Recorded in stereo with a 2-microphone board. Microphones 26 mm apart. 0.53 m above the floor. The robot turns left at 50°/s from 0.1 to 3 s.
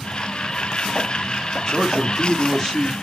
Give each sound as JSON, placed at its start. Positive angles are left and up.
{"t": 1.7, "sound": "a man speaking", "side_deg": 20, "distance_m": 1.0}